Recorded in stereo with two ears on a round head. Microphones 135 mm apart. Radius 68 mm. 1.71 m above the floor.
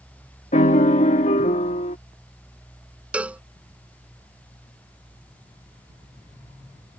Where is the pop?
No pop in this recording.